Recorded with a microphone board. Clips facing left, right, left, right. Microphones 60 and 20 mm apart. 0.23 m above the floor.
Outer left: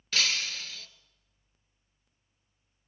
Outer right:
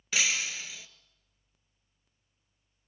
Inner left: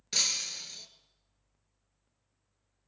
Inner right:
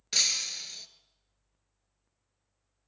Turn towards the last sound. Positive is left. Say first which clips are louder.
# outer right 1 dB, inner right 2 dB
turn(degrees=-10)  # may be behind; listen again after turning